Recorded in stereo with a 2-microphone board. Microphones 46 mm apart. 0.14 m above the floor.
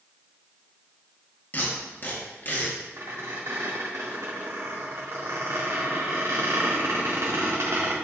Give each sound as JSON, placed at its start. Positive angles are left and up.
{"t": 1.5, "sound": "tape being pulled", "side_deg": 40, "distance_m": 2.0}
{"t": 3.0, "sound": "a squeak", "side_deg": -80, "distance_m": 3.0}